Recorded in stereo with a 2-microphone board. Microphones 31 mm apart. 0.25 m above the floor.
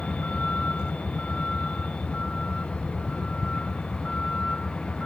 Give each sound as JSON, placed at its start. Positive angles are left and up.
{"t": 0.0, "sound": "a vehicle", "side_deg": 40}